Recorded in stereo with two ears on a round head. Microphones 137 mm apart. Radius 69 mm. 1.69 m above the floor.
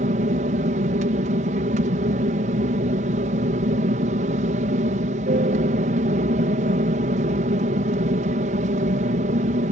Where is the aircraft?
50° right (ahead or behind).